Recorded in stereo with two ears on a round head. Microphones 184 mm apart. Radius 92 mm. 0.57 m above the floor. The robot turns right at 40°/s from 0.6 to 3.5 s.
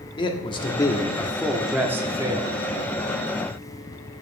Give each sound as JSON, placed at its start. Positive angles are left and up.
{"t": 0.2, "sound": "a man speaking", "azimuth_deg": 140, "distance_m": 1.0}